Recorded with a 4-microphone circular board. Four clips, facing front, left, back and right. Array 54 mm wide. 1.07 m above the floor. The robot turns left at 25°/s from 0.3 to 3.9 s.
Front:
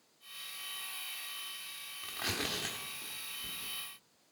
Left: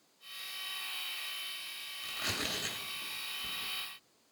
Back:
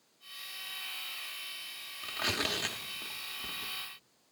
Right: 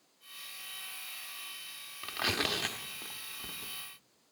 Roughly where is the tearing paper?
Right.